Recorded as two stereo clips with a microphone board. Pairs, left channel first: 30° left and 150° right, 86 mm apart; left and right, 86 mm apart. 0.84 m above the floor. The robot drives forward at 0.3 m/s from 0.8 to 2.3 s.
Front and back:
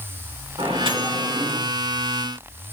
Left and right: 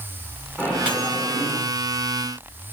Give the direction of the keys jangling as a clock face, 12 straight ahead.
I don't hear keys jangling.